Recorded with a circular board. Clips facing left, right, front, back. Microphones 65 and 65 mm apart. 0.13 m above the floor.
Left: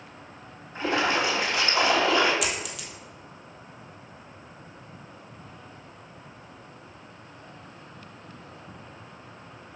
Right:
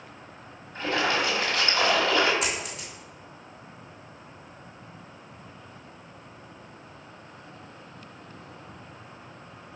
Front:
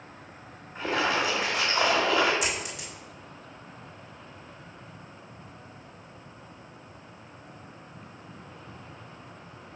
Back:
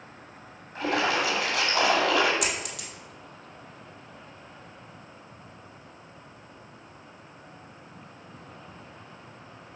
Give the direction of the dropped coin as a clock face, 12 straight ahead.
5 o'clock.